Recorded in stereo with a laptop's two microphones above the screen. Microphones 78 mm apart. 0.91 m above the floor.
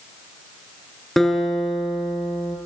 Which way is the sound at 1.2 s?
5° left (ahead or behind).